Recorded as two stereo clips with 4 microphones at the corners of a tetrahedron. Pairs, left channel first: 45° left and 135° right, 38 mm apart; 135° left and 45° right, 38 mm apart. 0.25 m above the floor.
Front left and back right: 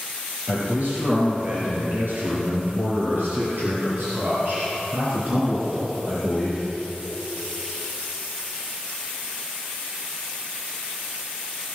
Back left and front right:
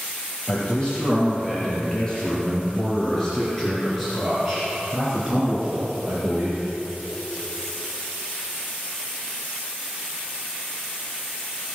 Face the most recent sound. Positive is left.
turn(degrees=-100)